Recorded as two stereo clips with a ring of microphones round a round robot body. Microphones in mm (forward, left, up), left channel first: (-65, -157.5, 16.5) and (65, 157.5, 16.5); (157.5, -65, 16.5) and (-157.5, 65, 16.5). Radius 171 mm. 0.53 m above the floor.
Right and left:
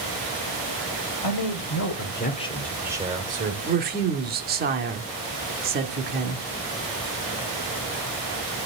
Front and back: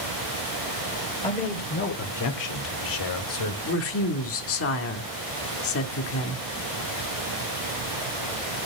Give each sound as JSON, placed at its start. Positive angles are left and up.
{"t": 1.2, "sound": "a man speaking", "azimuth_deg": -95, "distance_m": 2.0}
{"t": 3.7, "sound": "a woman speaking", "azimuth_deg": 10, "distance_m": 1.7}